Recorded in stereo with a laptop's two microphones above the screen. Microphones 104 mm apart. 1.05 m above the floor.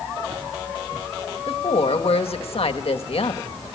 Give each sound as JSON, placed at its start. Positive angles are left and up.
{"t": 1.5, "sound": "a woman speaking", "side_deg": 70, "distance_m": 1.7}